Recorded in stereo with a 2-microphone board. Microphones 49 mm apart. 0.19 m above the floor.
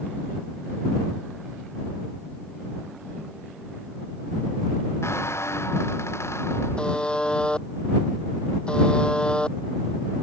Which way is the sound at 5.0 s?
60° left (ahead or behind).